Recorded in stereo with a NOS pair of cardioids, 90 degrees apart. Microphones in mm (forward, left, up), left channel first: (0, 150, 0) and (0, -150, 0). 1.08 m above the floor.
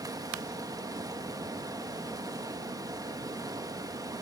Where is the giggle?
No giggle in this recording.